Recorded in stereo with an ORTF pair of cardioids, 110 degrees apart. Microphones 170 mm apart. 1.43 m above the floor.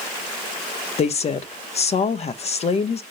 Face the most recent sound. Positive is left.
turn(degrees=40)